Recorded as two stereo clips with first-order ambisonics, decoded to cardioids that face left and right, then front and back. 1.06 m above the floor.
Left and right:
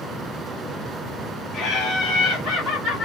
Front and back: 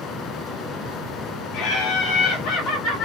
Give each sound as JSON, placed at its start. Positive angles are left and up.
{"t": 1.5, "sound": "laughter", "azimuth_deg": 25, "distance_m": 1.7}